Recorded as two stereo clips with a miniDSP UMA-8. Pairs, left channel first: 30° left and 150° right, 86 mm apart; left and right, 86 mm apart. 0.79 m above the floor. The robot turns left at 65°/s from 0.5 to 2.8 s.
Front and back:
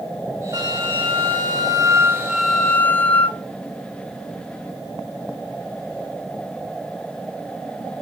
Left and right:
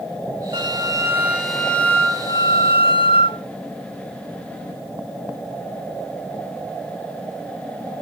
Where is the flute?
115° right, 0.8 m; by 3.4 s 100° left, 0.8 m.